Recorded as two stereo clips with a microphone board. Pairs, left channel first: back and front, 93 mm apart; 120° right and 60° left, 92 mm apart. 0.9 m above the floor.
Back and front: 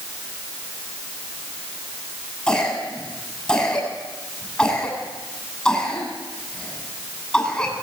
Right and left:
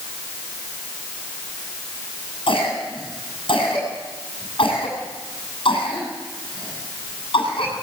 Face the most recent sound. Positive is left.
turn(degrees=-100)